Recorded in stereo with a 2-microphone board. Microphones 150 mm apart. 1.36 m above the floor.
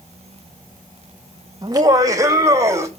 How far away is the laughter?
About 2.0 m.